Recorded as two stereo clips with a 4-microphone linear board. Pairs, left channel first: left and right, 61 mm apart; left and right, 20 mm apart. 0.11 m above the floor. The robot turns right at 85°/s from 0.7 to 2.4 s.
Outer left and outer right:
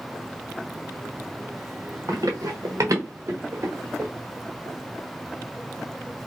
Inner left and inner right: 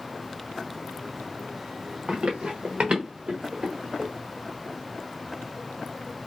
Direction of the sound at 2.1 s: 65° right (ahead or behind).